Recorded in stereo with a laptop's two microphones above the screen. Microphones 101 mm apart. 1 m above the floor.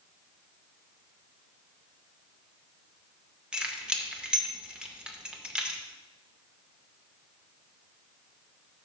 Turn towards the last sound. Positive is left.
turn(degrees=-10)  # may be behind; listen again after turning